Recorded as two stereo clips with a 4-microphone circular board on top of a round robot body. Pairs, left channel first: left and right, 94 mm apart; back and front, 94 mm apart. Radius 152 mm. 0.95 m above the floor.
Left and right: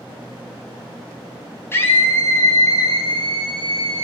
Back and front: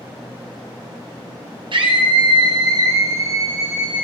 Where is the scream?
25° left, 2.5 m; by 4.0 s 75° left, 1.9 m.